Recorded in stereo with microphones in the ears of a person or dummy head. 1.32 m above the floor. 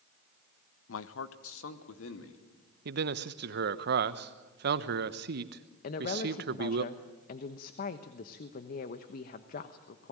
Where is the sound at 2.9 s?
55° right (ahead or behind), 1.0 m.